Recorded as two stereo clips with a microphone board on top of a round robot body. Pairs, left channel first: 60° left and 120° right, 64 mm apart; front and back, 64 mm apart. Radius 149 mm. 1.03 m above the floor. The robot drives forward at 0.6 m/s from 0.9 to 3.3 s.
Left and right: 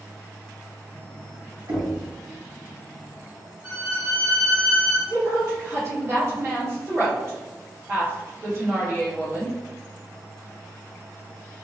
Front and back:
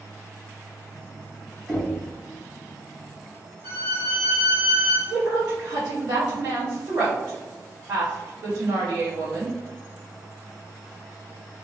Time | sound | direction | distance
1.7 | knocking | 90° right | 1.6 m
3.6 | a violin | 170° left | 1.0 m
5.1 | a woman speaking | 165° right | 1.8 m